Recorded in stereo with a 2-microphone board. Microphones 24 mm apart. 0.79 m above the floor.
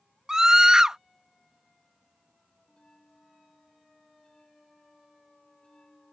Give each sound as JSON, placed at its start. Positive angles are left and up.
{"t": 0.3, "sound": "a scream", "side_deg": -25}
{"t": 2.7, "sound": "a bell", "side_deg": 35}